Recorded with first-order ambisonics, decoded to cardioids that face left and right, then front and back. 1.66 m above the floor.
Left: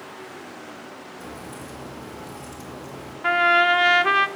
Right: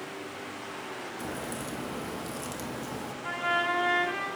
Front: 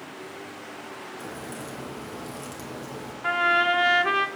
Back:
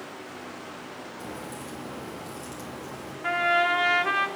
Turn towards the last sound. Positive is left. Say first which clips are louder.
# left 11 dB, front 1 dB
turn(degrees=85)